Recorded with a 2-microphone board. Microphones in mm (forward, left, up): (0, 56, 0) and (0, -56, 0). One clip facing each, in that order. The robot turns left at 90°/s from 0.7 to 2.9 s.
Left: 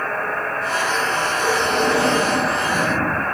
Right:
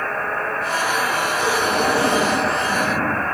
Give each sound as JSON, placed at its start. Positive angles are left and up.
{"t": 1.4, "sound": "breathing", "azimuth_deg": -60, "distance_m": 5.5}